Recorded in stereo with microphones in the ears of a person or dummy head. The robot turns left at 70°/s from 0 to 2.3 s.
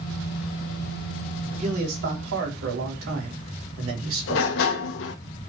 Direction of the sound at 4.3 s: 60° left (ahead or behind).